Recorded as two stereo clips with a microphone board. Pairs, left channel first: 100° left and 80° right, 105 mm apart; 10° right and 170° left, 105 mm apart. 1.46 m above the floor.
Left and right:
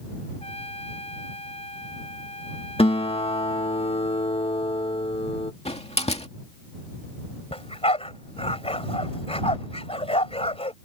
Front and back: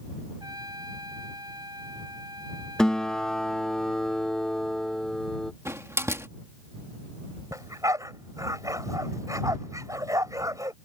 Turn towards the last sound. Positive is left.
turn(degrees=115)